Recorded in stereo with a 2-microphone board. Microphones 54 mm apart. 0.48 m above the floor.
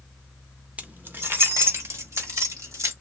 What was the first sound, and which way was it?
Keys jangling, 25° right (ahead or behind).